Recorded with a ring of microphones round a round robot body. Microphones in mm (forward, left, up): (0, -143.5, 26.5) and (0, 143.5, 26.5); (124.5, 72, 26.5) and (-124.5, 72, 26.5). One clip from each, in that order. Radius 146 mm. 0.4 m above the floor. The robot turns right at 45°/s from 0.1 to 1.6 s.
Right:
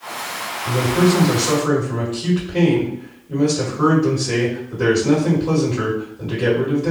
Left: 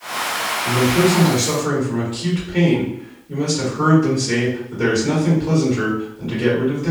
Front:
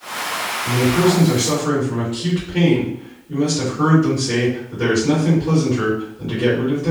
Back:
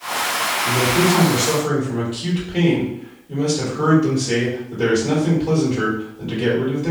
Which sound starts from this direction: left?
A man speaking, at 0.7 s.